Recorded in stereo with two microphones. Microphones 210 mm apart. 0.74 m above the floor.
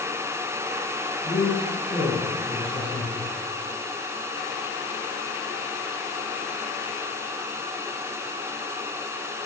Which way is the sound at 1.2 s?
45° left (ahead or behind).